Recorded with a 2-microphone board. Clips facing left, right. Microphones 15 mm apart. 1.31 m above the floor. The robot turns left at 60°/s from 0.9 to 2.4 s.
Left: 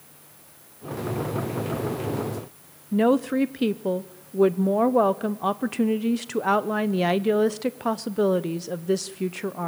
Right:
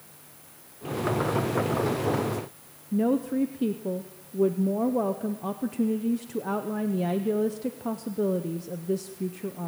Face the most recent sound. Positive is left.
turn(degrees=45)  # may be behind; listen again after turning